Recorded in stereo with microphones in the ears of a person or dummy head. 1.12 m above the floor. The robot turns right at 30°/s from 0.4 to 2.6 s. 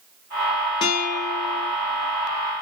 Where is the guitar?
30° left (ahead or behind), 1.6 m; by 1.7 s 60° left (ahead or behind), 1.6 m.